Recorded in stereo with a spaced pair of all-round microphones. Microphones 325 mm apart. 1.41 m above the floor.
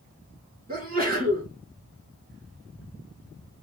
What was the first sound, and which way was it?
A sneeze, 25° right (ahead or behind).